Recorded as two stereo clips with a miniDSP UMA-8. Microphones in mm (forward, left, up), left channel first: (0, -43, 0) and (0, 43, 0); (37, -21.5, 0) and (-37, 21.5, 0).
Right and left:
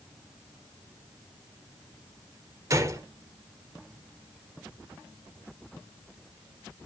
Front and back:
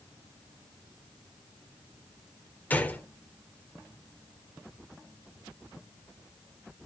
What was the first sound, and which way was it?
A gunshot, 40° left.